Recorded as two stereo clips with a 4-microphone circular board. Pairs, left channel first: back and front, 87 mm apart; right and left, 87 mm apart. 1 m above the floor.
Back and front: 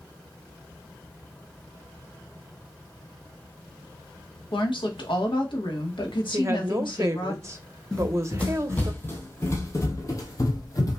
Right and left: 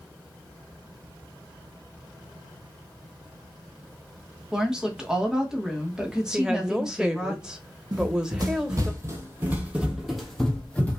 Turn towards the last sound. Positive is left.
turn(degrees=-155)